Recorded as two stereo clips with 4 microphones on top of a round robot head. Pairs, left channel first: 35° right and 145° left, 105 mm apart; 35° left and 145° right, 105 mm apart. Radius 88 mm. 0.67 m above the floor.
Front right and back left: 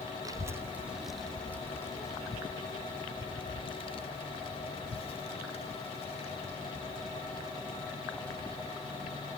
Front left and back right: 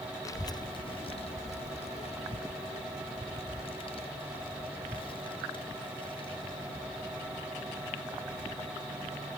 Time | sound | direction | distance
0.2 | a child speaking | 90° left | 1.1 m